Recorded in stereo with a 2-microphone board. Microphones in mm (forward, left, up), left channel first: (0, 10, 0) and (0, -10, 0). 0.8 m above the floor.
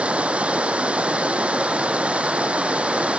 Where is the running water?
85° right.